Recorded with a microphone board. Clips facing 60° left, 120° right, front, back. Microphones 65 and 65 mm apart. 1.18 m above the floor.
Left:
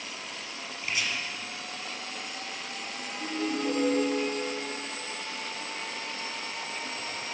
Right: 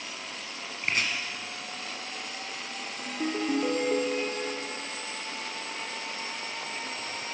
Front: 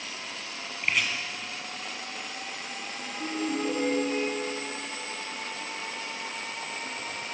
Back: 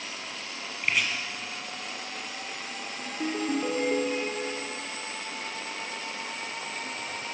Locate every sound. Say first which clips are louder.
0.8 s chopping: right 3 dB, even; 90° right, 1.9 m
3.1 s a ringtone: right 3 dB, back 2 dB; 140° right, 2.5 m